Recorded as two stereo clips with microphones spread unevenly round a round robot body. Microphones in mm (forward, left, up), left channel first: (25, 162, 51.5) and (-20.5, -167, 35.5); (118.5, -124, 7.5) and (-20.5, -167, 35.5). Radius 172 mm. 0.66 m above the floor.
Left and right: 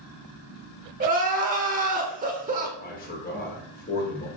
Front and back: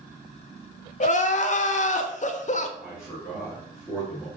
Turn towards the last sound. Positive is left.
turn(degrees=90)